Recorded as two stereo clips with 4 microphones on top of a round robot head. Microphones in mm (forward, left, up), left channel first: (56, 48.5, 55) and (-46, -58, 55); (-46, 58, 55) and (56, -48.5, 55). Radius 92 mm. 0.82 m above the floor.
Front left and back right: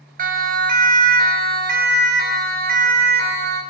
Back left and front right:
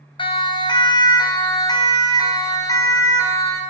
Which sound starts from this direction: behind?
A siren, at 0.2 s.